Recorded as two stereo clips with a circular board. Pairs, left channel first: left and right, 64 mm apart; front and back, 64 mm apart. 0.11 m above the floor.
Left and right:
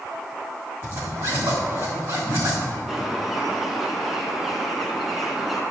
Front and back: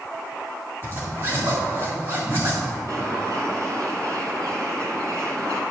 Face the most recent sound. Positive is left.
turn(degrees=180)